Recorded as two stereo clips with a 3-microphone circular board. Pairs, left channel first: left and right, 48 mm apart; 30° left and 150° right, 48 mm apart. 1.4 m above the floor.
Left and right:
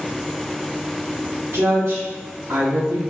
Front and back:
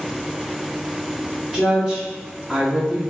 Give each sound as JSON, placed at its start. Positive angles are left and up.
{"t": 1.5, "sound": "a woman speaking", "azimuth_deg": -60, "distance_m": 1.3}